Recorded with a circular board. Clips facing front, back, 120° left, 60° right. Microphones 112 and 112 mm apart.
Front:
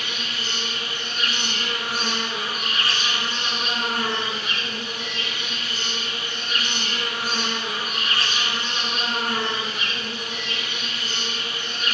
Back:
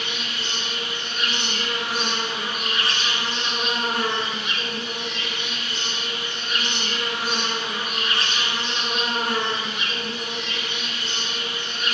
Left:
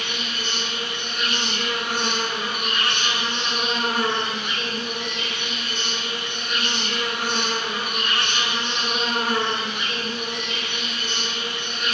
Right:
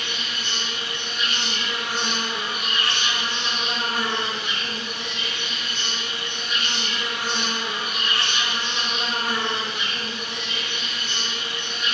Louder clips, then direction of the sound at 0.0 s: Back 1 dB, left 2 dB; 130° left.